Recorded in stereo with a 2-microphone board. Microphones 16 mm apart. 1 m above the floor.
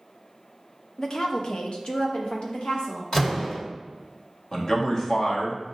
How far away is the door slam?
About 1.5 m.